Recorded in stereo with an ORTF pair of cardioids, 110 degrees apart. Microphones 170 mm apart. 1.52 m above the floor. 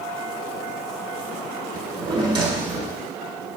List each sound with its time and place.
1.7 s a drawer: 25° right, 2 m